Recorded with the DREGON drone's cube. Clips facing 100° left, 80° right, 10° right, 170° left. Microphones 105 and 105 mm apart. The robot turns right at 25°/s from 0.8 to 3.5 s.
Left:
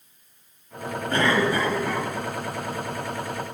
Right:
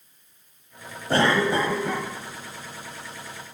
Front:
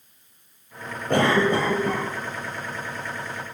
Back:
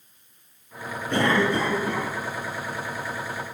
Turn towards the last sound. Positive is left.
turn(degrees=35)